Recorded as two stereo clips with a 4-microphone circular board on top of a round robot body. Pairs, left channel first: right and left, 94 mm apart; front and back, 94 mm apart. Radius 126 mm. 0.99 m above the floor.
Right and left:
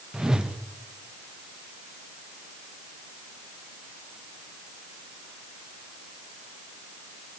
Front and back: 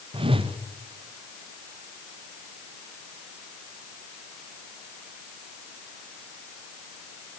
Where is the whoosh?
175° left, 1.2 m.